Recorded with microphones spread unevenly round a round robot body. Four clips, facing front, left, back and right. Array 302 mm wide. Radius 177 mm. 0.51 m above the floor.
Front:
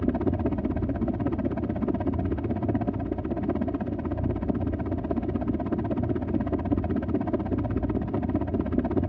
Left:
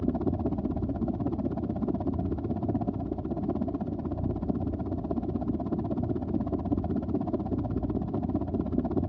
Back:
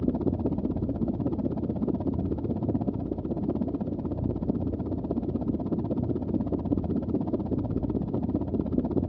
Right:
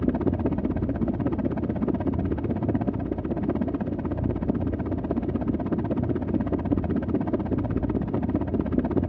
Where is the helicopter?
100° right.